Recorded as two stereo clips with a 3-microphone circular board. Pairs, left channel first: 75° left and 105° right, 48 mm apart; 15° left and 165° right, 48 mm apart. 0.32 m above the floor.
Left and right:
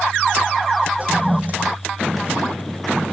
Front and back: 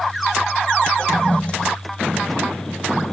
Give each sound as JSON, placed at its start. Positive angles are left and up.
{"t": 1.0, "sound": "a toilet flushing", "azimuth_deg": -50}